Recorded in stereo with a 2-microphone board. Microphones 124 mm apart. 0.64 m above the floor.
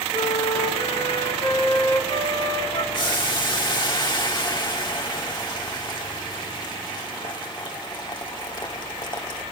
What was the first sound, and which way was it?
A flute, 45° left (ahead or behind).